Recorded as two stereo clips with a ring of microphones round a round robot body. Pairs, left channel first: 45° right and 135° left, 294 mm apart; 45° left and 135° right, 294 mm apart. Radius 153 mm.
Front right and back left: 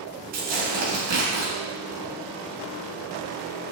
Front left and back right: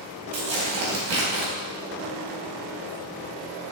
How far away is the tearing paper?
About 2.5 m.